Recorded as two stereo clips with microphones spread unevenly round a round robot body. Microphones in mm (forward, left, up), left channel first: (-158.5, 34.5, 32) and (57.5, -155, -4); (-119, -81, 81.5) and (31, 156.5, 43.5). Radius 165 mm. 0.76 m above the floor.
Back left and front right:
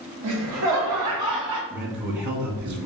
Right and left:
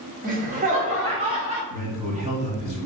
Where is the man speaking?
Straight ahead, 1.9 m.